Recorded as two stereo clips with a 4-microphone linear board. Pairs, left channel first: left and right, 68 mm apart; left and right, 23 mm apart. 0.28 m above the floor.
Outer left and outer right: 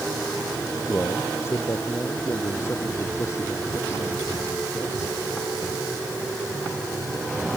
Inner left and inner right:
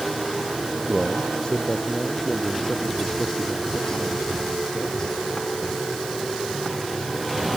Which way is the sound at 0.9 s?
30° left (ahead or behind).